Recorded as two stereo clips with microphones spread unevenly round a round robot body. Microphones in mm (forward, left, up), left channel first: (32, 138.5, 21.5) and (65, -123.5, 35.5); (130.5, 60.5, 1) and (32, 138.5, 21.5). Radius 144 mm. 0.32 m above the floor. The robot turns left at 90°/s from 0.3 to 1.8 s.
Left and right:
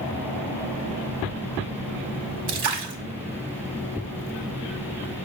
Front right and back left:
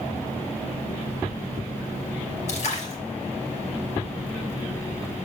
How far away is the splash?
About 1.2 m.